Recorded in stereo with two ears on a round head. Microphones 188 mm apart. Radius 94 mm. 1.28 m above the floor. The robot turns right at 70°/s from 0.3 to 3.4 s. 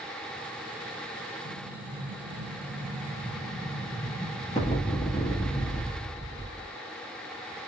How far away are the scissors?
I don't hear scissors.